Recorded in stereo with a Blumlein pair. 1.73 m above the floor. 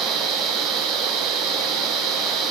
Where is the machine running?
30° right, 0.8 m.